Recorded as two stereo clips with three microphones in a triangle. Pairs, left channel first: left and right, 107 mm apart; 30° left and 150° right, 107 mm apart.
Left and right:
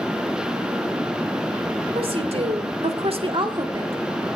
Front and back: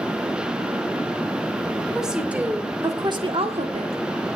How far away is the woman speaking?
About 2.5 m.